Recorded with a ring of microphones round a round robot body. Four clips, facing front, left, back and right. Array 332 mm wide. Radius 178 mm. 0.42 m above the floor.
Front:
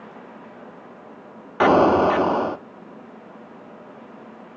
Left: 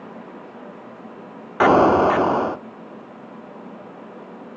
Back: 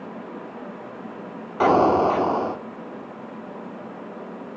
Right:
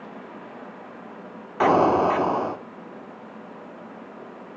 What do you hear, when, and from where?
1.6 s an explosion: 70° left, 0.8 m